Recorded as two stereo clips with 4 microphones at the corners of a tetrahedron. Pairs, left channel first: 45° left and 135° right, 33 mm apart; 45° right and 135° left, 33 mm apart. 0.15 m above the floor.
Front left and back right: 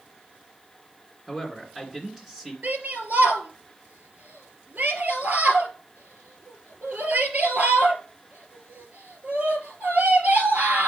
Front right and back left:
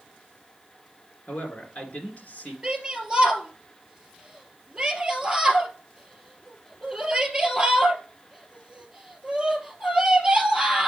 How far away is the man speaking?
About 2.5 m.